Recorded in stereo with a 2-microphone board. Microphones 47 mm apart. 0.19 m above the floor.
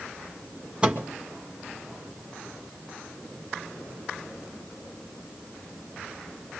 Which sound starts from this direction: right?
A microwave, at 0.8 s.